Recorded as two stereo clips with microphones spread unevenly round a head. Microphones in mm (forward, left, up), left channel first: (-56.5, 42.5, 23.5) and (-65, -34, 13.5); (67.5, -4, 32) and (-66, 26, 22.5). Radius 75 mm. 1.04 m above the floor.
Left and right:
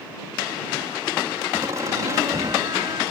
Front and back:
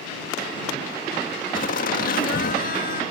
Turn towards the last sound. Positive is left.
turn(degrees=-40)